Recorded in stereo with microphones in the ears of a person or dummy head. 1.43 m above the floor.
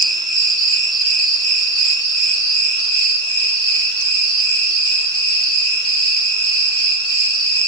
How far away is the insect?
About 2.5 m.